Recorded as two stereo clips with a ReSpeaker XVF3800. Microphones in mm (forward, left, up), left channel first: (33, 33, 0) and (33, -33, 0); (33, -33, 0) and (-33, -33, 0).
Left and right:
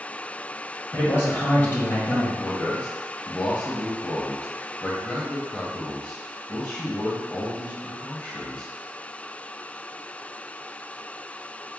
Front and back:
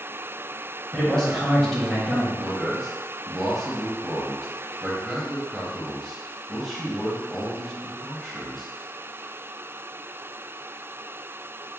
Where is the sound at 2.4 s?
85° left, 0.9 m.